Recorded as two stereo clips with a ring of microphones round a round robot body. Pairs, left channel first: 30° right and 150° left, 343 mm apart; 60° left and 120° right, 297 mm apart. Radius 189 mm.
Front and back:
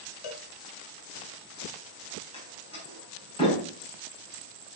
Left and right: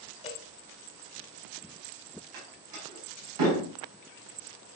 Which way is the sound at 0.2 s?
15° right.